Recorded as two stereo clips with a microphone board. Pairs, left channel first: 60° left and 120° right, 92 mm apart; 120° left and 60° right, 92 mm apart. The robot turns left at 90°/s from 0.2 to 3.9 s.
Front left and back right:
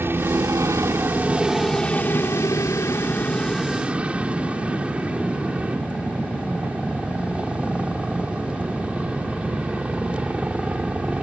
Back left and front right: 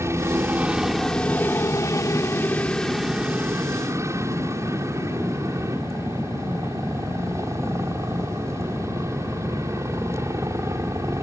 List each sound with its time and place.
0.0 s a helicopter: 80° right; by 11.2 s 55° right